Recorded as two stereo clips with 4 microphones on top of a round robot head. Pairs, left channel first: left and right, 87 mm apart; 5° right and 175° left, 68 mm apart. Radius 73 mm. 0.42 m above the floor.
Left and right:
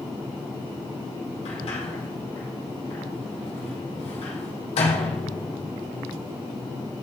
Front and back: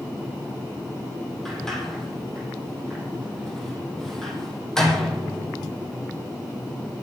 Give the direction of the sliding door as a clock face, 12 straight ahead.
9 o'clock.